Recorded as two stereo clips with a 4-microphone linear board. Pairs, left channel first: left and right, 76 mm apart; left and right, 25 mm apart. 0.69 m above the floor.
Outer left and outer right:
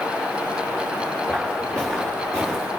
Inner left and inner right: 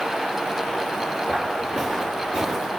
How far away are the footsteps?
About 3.5 m.